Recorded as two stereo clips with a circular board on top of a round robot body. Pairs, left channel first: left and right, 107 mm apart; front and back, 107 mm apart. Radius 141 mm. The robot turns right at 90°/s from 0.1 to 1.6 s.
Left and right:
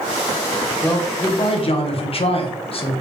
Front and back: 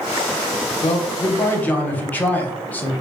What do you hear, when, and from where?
0.8 s a man speaking: 5° left, 0.7 m; by 2.9 s 75° left, 0.7 m